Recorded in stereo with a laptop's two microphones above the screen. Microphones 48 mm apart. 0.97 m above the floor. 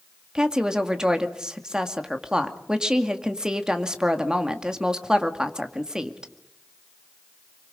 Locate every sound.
0.3 s a woman speaking: 15° right (ahead or behind), 2 m